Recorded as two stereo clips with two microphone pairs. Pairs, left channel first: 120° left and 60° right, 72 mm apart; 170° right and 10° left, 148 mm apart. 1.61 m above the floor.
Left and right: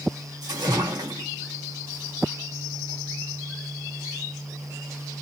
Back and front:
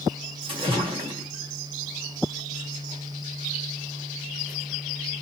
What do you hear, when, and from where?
0.4 s a splash: 40° right, 2.5 m